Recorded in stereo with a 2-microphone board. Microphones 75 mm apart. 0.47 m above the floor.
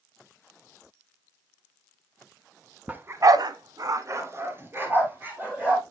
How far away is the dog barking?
About 0.9 m.